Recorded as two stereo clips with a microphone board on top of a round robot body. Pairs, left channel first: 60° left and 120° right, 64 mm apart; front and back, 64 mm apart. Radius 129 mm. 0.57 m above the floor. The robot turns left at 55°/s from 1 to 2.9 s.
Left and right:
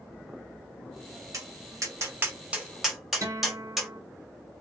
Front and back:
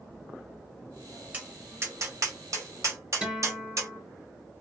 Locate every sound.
1.3 s tapping: 115° right, 1.3 m; by 3.9 s 155° left, 1.3 m
3.2 s a guitar: 110° right, 1.5 m